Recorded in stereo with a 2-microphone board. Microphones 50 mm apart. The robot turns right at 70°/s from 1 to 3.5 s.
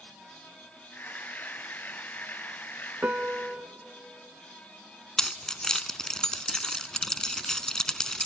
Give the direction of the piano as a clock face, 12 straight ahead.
3 o'clock.